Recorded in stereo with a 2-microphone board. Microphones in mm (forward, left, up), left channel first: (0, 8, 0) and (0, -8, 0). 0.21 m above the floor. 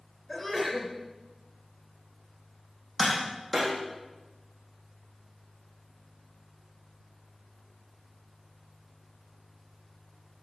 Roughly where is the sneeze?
Centre.